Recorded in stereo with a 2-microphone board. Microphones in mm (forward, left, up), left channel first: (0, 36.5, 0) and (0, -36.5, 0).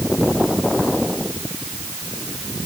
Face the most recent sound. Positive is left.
No sound to turn to.